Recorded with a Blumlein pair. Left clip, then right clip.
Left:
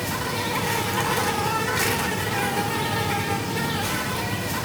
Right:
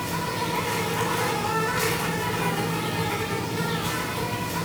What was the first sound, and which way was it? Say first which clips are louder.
An insect: left 1 dB; 45° left.